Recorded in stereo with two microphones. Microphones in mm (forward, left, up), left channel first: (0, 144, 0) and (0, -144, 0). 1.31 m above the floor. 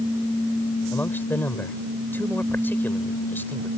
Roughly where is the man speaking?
Centre.